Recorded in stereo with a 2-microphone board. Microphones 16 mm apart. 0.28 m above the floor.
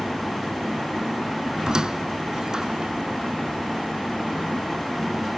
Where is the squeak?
45° right (ahead or behind), 0.7 m.